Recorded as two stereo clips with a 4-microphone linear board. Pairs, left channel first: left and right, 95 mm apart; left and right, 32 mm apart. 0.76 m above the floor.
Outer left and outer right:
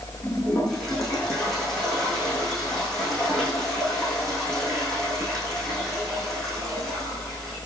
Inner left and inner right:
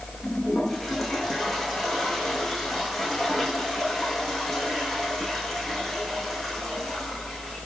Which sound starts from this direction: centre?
A toilet flushing, at 0.2 s.